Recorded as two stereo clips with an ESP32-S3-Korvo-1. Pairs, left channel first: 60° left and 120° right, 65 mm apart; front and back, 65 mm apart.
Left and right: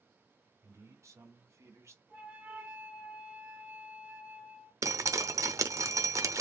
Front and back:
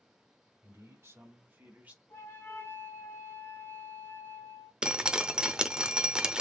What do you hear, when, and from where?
0.6 s a man speaking: 145° right, 2 m; by 2.0 s 120° right, 1.5 m
2.1 s a flute: 60° right, 2 m
4.8 s dripping: 105° right, 0.6 m